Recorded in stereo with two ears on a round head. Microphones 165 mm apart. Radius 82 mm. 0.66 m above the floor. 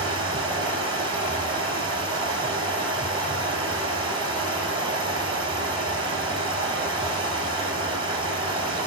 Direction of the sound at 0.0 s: 25° right (ahead or behind).